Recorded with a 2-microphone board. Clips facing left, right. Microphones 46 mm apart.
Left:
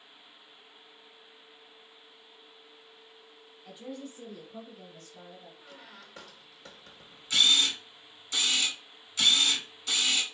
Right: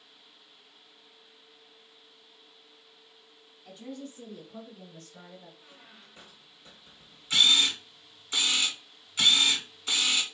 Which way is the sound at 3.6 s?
15° left (ahead or behind).